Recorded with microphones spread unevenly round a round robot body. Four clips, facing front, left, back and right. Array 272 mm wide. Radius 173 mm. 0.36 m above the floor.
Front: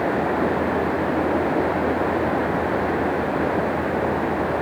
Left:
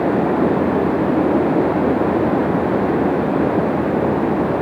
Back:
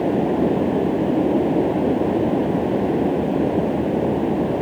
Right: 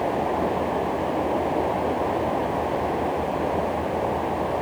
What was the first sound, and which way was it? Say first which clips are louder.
Running water: left 7 dB, back 2 dB; 120° left.